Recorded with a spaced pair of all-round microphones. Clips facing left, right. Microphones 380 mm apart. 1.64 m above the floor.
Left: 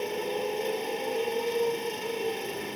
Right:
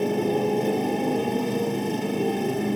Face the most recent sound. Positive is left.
turn(degrees=-65)  # may be behind; listen again after turning